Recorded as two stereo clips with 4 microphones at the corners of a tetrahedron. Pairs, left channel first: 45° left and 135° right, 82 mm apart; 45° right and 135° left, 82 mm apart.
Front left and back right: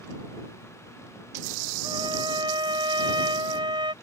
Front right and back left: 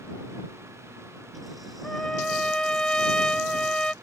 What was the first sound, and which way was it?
A trumpet, 125° right.